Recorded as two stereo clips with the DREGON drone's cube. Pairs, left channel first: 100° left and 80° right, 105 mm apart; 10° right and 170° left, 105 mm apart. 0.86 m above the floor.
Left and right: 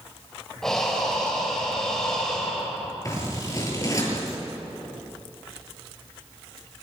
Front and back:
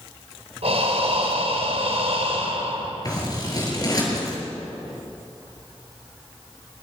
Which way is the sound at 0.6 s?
175° right.